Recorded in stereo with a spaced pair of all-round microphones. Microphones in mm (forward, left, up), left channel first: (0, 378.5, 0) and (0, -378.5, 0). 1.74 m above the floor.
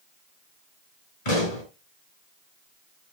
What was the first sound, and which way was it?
A pop, 60° left (ahead or behind).